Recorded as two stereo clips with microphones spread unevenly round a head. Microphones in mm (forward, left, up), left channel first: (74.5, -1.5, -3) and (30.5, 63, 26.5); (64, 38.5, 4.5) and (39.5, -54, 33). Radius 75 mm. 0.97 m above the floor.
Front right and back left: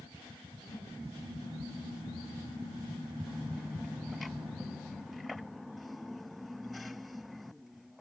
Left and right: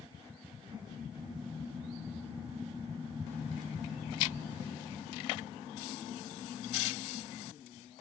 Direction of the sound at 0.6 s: 70° right.